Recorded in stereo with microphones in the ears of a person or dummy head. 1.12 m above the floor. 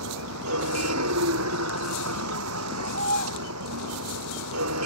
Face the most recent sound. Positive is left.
turn(degrees=-85)